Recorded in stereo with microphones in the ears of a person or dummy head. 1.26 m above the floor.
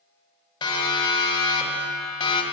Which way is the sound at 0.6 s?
25° left (ahead or behind).